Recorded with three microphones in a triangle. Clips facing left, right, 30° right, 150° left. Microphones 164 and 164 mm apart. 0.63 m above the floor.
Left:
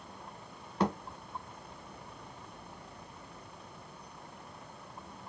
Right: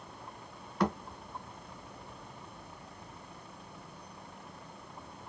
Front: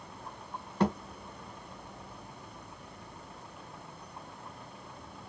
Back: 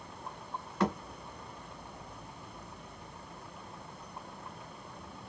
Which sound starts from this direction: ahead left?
A thud, at 0.8 s.